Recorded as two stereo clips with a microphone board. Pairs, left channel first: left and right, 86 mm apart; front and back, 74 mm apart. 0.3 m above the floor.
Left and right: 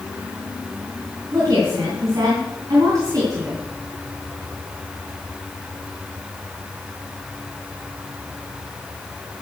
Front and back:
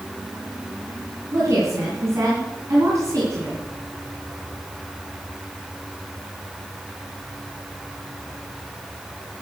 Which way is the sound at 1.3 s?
135° right.